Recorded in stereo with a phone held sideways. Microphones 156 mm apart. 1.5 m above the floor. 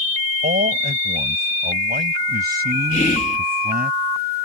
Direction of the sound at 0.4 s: 75° right (ahead or behind).